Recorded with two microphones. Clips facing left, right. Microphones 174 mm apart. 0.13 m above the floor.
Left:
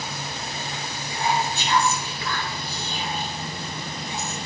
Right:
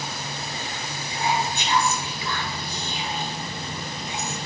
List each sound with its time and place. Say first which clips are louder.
1.1 s whispering: left 1 dB; 20° right (ahead or behind), 2.5 m